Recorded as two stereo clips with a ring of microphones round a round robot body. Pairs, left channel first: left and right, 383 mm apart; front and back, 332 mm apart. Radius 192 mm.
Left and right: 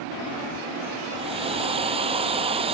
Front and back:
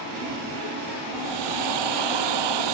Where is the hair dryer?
165° right.